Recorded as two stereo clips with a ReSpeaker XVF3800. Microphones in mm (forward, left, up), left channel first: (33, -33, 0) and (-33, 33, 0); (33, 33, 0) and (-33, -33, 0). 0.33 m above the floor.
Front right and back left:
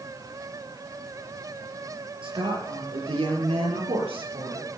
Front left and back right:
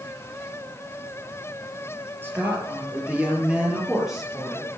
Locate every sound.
2.2 s a woman speaking: 160° left, 6.5 m; by 4.7 s 135° left, 7.5 m